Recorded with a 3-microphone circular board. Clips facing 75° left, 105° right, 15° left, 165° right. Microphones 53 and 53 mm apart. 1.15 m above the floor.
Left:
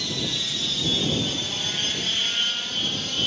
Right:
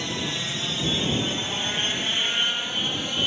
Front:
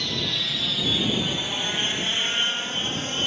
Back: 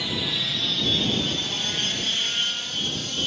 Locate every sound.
0.0 s an aircraft: 90° right; by 3.3 s 35° right